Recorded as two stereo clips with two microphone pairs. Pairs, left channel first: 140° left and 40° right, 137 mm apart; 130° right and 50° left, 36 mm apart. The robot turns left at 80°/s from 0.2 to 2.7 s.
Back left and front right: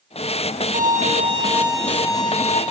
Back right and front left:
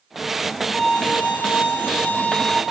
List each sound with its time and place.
0.7 s a violin: 50° right, 1.5 m; by 2.6 s 160° left, 1.5 m